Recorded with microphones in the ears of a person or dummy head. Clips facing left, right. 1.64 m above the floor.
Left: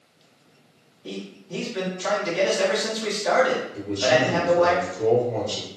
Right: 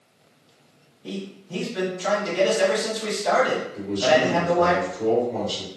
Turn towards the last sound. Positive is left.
turn(degrees=15)  # may be behind; listen again after turning